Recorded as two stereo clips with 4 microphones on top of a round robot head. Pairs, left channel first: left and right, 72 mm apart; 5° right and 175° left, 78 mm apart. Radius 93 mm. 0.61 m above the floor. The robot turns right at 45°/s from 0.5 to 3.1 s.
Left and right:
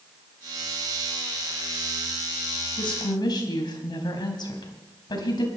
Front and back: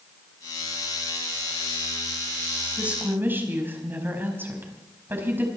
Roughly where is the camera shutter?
I don't hear a camera shutter.